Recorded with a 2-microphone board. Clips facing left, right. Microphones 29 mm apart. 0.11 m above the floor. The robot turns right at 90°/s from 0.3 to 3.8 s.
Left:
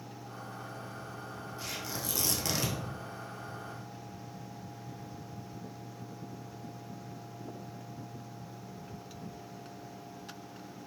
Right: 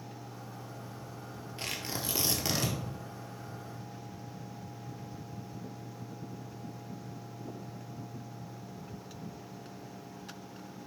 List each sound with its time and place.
1.6 s tearing paper: 95° right, 1.1 m; by 2.8 s 10° left, 1.1 m